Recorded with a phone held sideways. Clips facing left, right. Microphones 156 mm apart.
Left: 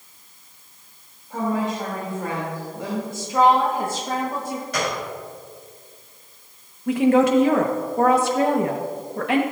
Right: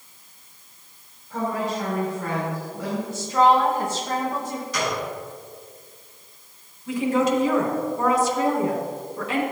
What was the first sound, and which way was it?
A woman speaking, 25° left (ahead or behind).